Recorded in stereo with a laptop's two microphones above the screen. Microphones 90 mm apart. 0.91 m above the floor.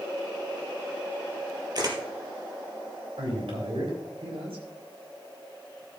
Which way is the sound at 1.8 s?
45° right (ahead or behind).